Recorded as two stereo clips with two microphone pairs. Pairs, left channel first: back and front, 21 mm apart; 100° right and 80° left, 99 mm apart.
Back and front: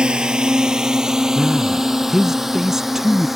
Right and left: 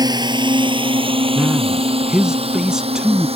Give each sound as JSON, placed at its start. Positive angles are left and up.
{"t": 0.0, "sound": "a drone", "azimuth_deg": 35}
{"t": 1.4, "sound": "a man speaking", "azimuth_deg": 5}